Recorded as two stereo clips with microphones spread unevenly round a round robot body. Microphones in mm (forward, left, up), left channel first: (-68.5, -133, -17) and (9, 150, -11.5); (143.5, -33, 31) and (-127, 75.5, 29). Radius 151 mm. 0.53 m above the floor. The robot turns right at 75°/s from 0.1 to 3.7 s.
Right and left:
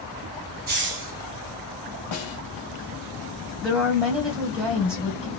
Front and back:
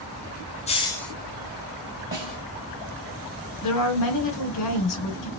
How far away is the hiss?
About 0.9 m.